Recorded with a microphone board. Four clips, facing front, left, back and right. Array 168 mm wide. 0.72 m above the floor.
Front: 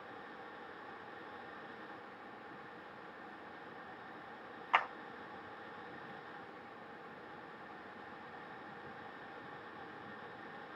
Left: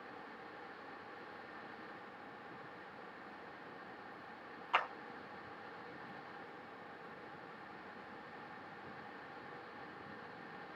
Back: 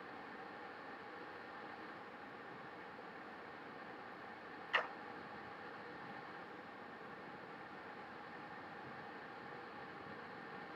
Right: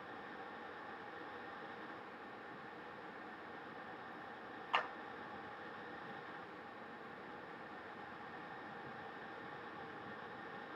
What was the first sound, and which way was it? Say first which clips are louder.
A clap: left 3 dB, front 7 dB; straight ahead.